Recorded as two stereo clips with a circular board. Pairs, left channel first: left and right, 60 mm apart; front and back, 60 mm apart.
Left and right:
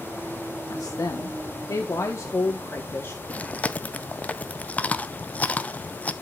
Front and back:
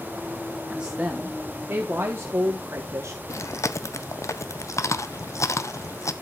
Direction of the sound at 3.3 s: 25° left.